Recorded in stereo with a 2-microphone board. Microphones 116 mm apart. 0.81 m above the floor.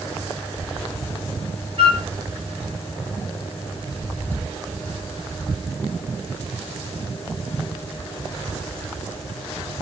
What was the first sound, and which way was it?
A flute, 55° right (ahead or behind).